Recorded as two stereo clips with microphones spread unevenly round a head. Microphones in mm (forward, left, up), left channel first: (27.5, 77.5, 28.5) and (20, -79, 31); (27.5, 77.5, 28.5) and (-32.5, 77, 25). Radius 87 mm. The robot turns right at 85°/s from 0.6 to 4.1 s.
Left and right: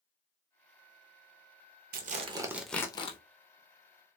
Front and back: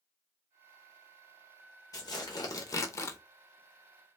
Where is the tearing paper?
65° right, 0.6 m; by 3.2 s 40° left, 0.6 m.